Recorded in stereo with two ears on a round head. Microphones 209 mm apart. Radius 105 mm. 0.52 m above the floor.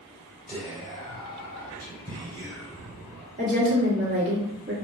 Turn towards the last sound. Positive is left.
turn(degrees=-40)  # may be behind; listen again after turning